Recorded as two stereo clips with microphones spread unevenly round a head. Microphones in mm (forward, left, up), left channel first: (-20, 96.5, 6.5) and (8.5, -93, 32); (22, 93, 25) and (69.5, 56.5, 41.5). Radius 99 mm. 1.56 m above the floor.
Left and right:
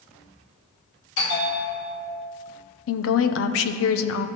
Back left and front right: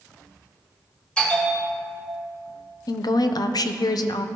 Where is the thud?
No thud in this recording.